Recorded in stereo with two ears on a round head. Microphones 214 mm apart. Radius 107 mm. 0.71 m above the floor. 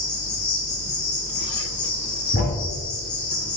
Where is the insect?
85° left, 4.5 m.